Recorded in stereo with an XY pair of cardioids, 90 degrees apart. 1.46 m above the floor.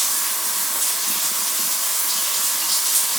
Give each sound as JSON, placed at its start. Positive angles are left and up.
{"t": 0.0, "sound": "running water", "azimuth_deg": -10, "distance_m": 1.0}